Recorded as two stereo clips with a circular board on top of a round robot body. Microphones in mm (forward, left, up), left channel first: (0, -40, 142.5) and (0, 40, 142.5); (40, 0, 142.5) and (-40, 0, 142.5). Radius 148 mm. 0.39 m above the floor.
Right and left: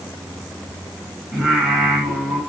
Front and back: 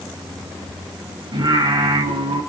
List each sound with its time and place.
1.3 s singing: 165° left, 4.5 m